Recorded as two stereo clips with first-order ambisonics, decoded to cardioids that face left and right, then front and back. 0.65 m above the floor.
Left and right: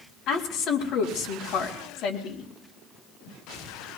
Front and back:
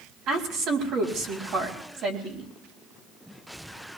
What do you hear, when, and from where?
0.3 s a woman speaking: 140° left, 3.5 m